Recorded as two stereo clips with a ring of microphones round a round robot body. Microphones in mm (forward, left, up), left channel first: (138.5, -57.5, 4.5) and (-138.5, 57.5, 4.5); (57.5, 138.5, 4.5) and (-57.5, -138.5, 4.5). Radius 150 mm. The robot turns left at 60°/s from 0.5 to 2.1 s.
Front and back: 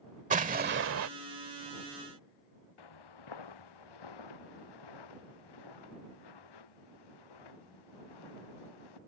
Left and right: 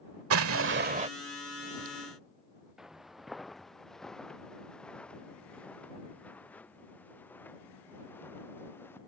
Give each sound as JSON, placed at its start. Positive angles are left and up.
{"t": 0.3, "sound": "an explosion", "azimuth_deg": -145}
{"t": 2.8, "sound": "footsteps", "azimuth_deg": -25}